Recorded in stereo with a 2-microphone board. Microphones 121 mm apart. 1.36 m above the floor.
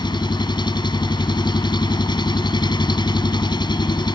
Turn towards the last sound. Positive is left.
turn(degrees=40)  # may be behind; listen again after turning